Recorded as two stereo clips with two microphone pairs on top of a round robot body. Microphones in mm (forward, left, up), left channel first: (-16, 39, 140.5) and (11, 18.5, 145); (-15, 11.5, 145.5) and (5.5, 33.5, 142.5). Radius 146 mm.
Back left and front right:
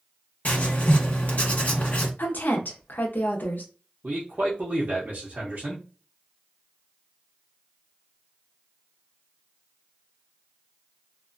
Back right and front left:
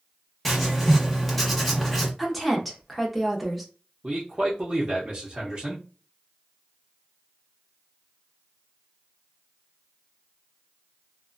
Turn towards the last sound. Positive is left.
turn(degrees=-5)